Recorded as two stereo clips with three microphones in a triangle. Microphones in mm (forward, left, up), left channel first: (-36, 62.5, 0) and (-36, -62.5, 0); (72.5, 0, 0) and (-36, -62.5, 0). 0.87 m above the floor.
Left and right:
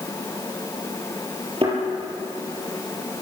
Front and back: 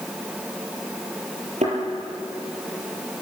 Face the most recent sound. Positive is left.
turn(degrees=-130)